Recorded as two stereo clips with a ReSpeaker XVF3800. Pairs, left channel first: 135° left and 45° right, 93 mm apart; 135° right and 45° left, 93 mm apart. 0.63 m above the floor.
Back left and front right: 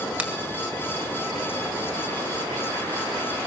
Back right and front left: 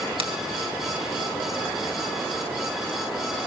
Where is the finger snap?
35° left, 2 m.